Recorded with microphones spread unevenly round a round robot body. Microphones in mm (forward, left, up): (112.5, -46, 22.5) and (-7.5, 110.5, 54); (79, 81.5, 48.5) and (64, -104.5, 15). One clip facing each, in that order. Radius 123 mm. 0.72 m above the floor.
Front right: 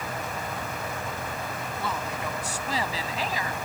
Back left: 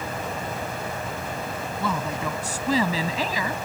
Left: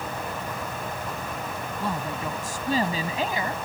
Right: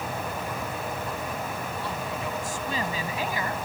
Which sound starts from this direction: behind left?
A woman speaking, at 1.8 s.